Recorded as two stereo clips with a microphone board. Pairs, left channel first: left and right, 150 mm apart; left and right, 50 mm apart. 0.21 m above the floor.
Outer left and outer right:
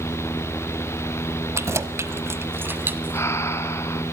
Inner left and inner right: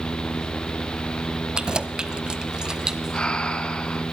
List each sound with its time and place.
1.6 s keys jangling: 20° right (ahead or behind), 0.8 m; by 3.3 s 10° right (ahead or behind), 1.2 m
3.1 s breathing: 20° left (ahead or behind), 1.1 m